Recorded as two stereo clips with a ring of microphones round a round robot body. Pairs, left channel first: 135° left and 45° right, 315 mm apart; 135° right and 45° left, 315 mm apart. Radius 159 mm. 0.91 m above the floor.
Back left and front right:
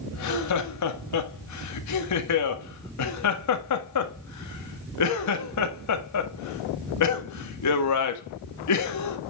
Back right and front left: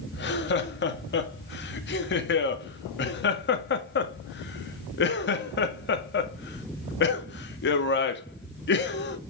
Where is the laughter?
170° left, 1.8 m.